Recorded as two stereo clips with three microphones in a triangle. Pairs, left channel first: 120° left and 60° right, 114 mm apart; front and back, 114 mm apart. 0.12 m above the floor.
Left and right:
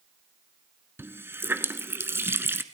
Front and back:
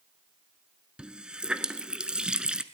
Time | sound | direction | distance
1.0 | a running tap | 105° right | 1.0 m